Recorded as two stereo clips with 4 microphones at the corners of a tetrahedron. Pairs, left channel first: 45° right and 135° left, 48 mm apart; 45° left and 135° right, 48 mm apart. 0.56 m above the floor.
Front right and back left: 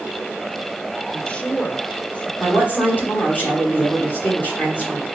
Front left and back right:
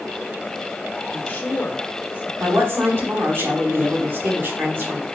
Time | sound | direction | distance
1.1 | a woman speaking | 10° left | 1.7 m
2.4 | a woman speaking | 90° right | 4.5 m